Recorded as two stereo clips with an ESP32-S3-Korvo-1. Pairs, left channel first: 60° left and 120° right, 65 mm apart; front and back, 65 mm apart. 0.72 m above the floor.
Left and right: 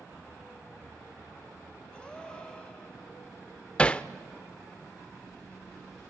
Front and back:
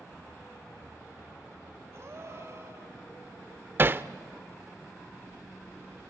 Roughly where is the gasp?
Behind left.